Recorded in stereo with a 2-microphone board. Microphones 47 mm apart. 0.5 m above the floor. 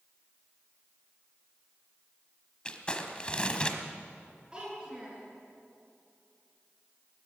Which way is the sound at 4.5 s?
20° right (ahead or behind).